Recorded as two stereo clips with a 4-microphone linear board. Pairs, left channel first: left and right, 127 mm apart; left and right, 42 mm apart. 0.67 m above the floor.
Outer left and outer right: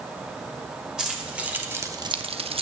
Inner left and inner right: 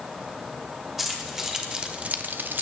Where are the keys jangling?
5° right (ahead or behind), 2 m; by 2.6 s 45° right (ahead or behind), 0.8 m.